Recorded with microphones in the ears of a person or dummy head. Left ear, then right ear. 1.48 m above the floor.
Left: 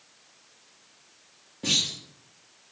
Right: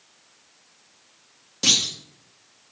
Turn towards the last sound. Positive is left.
turn(degrees=-65)  # may be behind; listen again after turning